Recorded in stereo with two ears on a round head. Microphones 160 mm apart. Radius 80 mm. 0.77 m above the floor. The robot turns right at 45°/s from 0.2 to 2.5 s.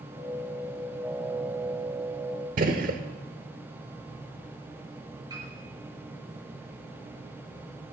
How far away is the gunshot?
About 0.9 m.